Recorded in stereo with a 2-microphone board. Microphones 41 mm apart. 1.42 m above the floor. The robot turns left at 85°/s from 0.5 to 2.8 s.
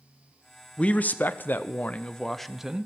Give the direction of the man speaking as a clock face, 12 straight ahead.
7 o'clock.